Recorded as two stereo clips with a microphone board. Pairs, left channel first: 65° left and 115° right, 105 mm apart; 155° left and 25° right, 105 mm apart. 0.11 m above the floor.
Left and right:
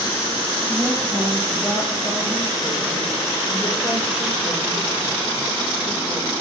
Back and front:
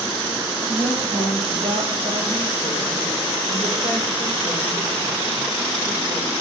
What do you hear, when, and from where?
0.7 s a woman speaking: 15° right, 2.5 m; by 6.3 s 25° left, 5.5 m